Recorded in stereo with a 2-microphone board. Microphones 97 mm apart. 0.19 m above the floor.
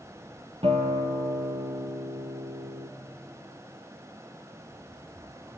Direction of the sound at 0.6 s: 75° right (ahead or behind).